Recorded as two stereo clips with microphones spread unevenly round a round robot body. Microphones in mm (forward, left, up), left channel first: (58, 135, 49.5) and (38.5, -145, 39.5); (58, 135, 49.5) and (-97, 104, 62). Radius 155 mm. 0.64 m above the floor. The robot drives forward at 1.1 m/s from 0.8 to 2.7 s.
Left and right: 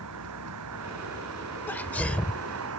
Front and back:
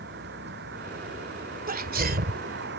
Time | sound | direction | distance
0.0 | a vehicle | 135° right | ?
1.7 | a sneeze | 170° left | ?